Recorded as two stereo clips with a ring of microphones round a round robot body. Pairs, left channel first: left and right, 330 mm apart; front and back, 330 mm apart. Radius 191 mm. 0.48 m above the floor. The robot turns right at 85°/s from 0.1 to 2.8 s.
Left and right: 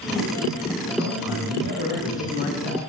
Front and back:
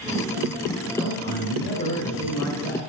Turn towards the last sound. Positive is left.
turn(degrees=65)